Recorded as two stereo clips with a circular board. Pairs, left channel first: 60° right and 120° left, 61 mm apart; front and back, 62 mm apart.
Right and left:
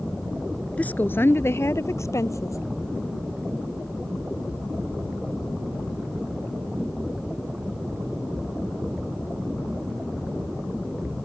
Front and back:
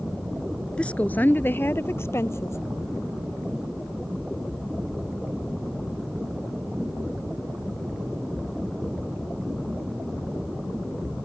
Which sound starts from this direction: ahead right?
A woman speaking, at 0.8 s.